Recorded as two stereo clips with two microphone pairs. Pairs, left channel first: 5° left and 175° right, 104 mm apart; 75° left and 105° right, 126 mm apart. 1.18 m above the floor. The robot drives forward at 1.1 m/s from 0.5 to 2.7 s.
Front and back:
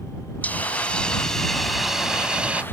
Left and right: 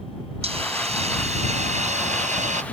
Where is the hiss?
70° right; by 2.6 s 95° right.